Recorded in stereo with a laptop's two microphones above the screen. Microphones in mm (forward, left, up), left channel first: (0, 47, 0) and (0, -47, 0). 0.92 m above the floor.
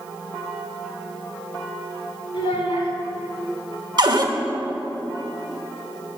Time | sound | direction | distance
2.3 | a child speaking | 85° left | 2.0 m
4.0 | a cupboard door | 50° right (ahead or behind) | 0.9 m